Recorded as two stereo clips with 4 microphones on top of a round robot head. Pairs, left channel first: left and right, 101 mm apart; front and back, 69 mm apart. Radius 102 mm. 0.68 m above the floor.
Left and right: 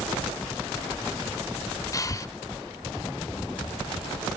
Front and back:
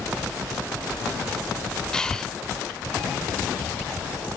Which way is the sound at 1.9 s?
75° left.